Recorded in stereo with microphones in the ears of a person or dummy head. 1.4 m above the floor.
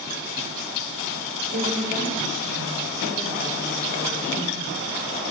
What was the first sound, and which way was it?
A woman speaking, 85° right.